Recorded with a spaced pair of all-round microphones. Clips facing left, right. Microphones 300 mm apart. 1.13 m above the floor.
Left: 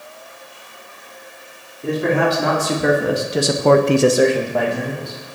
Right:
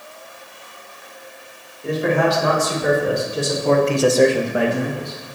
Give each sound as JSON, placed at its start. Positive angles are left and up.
{"t": 1.8, "sound": "a man speaking", "side_deg": 60, "distance_m": 2.5}